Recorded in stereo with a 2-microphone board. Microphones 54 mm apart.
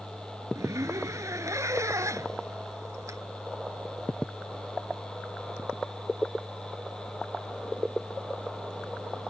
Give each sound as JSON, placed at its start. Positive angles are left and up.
{"t": 0.6, "sound": "a zipper", "side_deg": -85}